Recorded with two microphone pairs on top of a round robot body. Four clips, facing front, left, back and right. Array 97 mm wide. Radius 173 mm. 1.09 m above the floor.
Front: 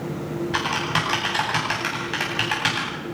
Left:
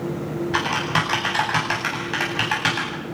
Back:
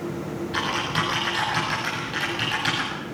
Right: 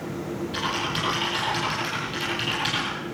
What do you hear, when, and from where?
0.5 s typing on a keyboard: 70° left, 9 m